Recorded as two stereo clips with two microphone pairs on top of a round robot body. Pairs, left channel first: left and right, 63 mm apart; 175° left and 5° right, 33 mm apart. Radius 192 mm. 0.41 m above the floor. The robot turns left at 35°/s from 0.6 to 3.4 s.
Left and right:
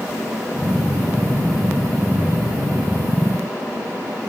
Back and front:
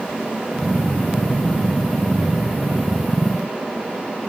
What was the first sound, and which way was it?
Only background noise.